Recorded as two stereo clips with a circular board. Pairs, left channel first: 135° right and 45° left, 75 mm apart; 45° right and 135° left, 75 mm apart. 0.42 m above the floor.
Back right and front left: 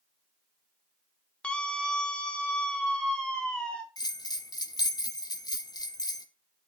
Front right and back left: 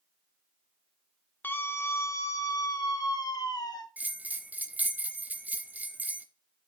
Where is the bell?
160° right, 0.7 m.